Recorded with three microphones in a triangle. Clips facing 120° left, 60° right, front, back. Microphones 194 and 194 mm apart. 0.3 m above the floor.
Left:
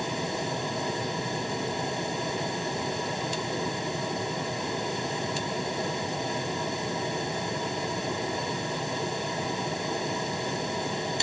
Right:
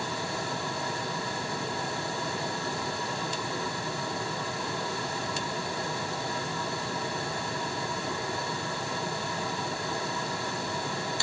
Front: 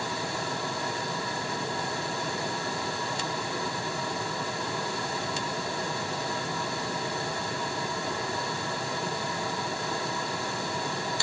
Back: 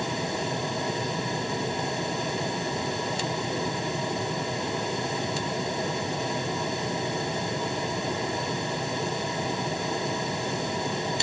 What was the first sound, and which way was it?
Only background noise.